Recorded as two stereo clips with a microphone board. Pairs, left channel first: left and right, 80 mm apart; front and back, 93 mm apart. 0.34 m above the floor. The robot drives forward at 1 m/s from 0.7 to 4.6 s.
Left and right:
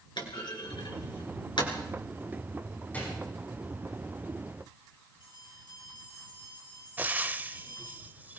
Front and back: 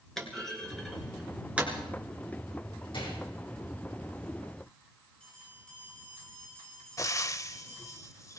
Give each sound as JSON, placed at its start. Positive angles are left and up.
{"t": 0.2, "sound": "a clunk", "azimuth_deg": 85, "distance_m": 2.5}
{"t": 2.9, "sound": "a gunshot", "azimuth_deg": 20, "distance_m": 6.0}
{"t": 5.2, "sound": "a bell", "azimuth_deg": 75, "distance_m": 9.0}
{"t": 7.0, "sound": "frying", "azimuth_deg": -30, "distance_m": 0.7}